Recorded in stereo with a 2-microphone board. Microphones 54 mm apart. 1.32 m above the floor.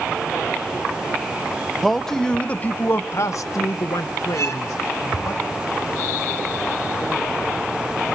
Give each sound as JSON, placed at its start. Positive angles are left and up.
{"t": 1.8, "sound": "a man speaking", "side_deg": 0, "distance_m": 1.2}
{"t": 4.3, "sound": "a violin", "side_deg": 65, "distance_m": 1.9}